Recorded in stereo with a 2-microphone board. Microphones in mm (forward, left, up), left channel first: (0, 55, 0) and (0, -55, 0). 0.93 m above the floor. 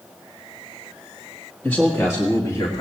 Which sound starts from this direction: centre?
A man speaking, at 1.6 s.